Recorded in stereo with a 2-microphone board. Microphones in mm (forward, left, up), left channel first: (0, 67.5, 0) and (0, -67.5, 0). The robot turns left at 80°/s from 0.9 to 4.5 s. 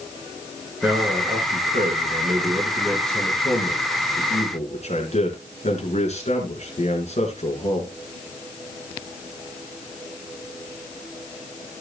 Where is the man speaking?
10° right, 4.5 m; by 7.9 s 60° left, 4.5 m.